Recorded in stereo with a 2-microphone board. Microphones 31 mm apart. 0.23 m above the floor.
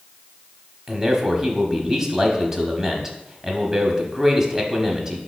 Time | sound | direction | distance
0.9 | a man speaking | 15° right (ahead or behind) | 1.0 m